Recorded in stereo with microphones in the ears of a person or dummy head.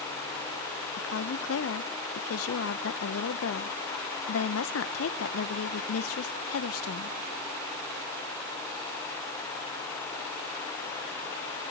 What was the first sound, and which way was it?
A woman speaking, 75° left (ahead or behind).